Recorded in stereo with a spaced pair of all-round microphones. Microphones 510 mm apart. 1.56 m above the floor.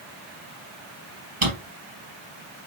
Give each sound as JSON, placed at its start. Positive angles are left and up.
{"t": 1.4, "sound": "a drawer", "side_deg": -70, "distance_m": 3.5}